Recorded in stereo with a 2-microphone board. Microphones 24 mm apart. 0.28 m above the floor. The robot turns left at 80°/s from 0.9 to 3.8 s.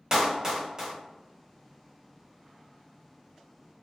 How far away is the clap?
About 1.2 m.